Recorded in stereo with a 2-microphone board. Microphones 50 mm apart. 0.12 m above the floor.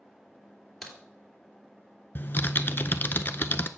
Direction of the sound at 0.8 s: Centre (ahead or behind).